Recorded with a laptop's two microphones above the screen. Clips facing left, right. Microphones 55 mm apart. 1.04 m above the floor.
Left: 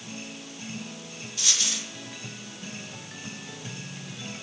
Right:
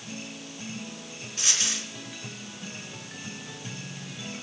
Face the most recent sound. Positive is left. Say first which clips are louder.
# even
turn(degrees=-45)  # may be behind; listen again after turning